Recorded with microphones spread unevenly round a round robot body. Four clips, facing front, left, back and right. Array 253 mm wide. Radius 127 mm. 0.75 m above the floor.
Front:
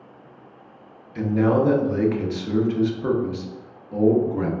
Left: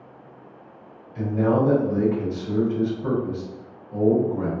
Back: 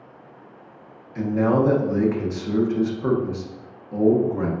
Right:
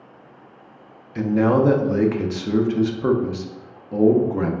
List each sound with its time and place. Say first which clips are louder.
1.1 s a man speaking: right 3 dB, even; 95° right, 0.9 m